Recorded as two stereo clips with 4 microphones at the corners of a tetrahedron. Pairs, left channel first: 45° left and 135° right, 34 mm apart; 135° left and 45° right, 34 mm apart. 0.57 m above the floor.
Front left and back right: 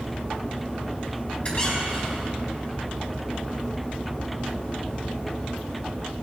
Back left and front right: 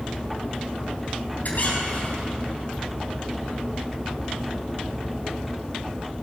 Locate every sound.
1.4 s a squeak: 105° left, 3.5 m